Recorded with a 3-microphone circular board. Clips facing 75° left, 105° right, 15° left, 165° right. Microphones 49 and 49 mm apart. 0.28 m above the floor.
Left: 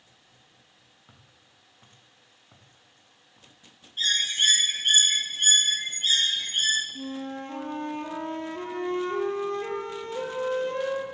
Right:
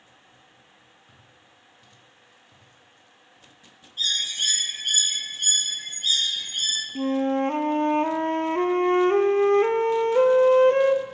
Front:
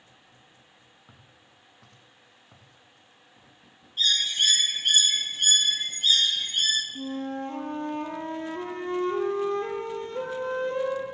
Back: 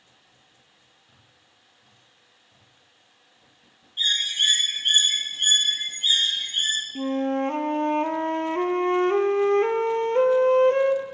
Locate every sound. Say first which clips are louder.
1.1 s footsteps: right 3 dB, front 4 dB; 15° left, 6 m; by 3.5 s 25° left, 6 m
4.0 s a bird: left 2 dB, back 1 dB; 125° left, 2.5 m
7.0 s a flute: right 11 dB, back 8 dB; 140° right, 1.1 m